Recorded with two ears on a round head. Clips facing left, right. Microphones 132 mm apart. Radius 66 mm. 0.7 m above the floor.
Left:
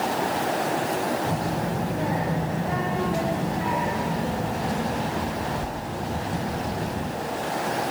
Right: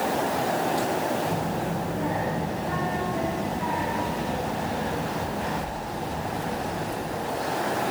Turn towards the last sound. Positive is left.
turn(degrees=75)  # may be behind; listen again after turning